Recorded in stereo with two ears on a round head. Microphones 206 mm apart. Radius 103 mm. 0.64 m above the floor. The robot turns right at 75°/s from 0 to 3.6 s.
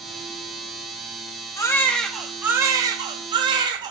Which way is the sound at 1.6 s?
15° left (ahead or behind).